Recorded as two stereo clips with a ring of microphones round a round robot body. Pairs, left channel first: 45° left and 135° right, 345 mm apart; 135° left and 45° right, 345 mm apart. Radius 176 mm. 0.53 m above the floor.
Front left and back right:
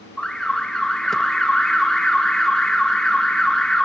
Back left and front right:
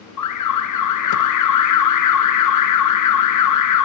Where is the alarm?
135° left, 0.7 m.